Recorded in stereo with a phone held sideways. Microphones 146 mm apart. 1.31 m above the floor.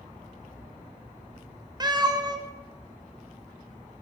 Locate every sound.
1.8 s a cat meowing: 30° right (ahead or behind), 0.5 m